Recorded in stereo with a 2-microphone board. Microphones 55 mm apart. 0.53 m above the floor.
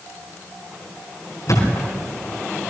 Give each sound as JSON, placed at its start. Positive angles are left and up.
{"t": 1.5, "sound": "a thud", "side_deg": 75, "distance_m": 5.5}